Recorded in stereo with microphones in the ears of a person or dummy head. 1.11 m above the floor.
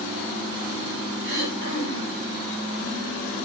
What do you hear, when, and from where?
1.2 s throat clearing: 75° right (ahead or behind), 6 m